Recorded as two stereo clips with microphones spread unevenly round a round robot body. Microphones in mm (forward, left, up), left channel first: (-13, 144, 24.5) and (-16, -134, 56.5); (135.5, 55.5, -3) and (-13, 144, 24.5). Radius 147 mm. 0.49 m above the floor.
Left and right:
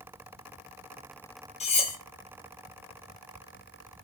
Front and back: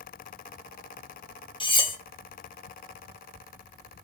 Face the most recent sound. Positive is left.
turn(degrees=25)